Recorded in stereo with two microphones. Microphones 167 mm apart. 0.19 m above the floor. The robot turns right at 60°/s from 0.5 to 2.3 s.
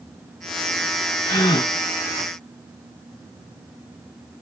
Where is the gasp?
25° left (ahead or behind), 1.1 m.